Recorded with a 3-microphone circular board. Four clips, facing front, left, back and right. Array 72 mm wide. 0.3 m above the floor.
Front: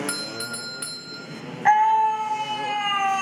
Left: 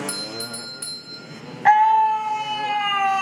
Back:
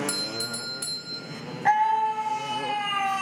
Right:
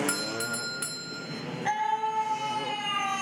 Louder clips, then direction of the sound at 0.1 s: Right 1 dB, front 2 dB; 40° right.